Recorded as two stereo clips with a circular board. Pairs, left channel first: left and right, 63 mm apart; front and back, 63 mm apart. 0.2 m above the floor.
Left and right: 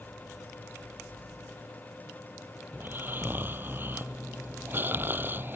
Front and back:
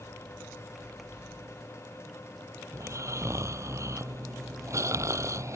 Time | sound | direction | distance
2.7 | snoring | 145° right | ?